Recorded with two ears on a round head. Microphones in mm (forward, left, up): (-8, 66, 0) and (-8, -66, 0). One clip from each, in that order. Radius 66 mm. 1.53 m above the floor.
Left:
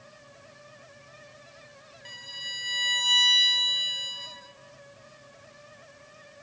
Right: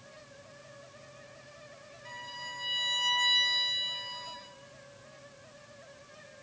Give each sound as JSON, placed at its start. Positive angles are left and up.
{"t": 2.0, "sound": "a violin", "side_deg": 60, "distance_m": 3.5}